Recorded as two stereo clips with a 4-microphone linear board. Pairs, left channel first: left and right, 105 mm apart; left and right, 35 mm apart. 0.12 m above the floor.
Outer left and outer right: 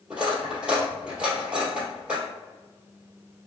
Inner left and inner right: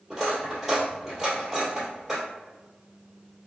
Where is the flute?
No flute in this recording.